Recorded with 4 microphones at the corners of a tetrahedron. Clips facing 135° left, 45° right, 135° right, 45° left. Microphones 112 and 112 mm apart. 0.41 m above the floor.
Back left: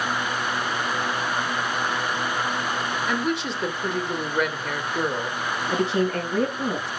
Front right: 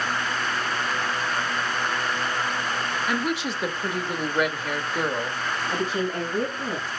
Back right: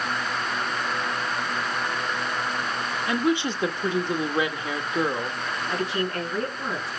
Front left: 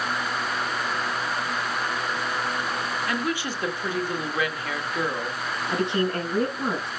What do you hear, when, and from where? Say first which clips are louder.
3.1 s a woman speaking: back left 1 dB, back right 8 dB; 135° right, 1.2 m
5.7 s a woman speaking: back left 5 dB, front left 4 dB; 110° left, 5 m